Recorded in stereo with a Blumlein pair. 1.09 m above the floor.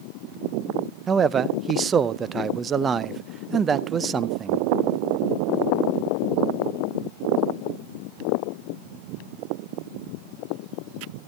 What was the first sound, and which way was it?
A man speaking, 20° right.